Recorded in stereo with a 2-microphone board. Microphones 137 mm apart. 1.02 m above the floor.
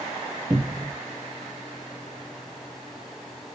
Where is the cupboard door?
15° right (ahead or behind), 0.9 m.